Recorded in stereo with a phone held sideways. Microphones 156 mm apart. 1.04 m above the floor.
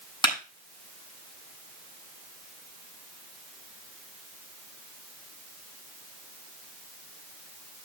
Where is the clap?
30° left (ahead or behind), 8 m.